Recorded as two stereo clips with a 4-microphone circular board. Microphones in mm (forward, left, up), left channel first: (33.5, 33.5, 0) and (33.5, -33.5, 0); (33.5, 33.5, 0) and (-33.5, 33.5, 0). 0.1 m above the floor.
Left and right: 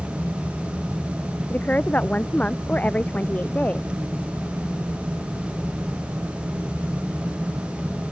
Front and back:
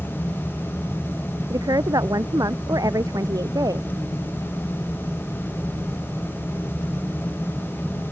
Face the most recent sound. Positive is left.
turn(degrees=160)